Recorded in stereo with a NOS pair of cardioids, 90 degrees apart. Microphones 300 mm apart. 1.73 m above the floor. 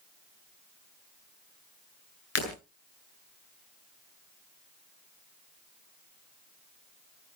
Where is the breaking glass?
50° left, 8 m.